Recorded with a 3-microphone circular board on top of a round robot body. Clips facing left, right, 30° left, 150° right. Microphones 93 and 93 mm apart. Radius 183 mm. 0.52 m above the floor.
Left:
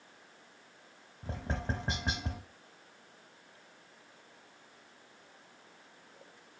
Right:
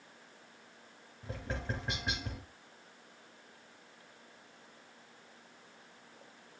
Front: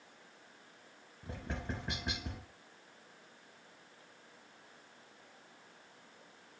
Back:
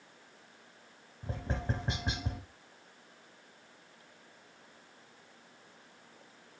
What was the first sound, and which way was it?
Tapping, 145° left.